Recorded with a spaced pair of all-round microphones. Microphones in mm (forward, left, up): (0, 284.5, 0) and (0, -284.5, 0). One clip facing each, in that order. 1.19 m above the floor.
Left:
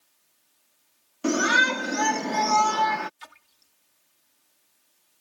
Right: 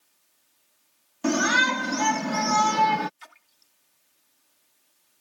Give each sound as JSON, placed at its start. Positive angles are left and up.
{"t": 1.2, "sound": "a shout", "side_deg": -20}
{"t": 3.2, "sound": "a splash", "side_deg": 55}